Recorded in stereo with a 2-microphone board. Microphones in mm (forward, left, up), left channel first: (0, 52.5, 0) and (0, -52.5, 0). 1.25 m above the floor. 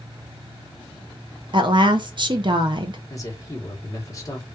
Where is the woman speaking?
50° right (ahead or behind), 0.5 m.